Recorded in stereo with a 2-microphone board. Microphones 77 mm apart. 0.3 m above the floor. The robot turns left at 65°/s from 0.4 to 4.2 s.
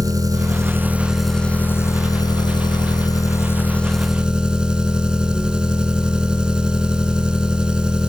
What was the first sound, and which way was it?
An engine running, 125° right.